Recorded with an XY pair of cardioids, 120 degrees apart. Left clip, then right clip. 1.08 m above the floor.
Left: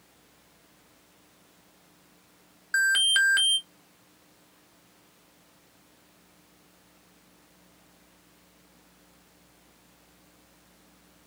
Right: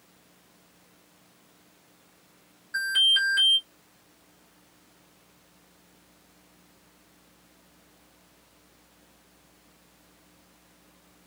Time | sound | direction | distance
2.7 | an alarm | 60° left | 1.4 m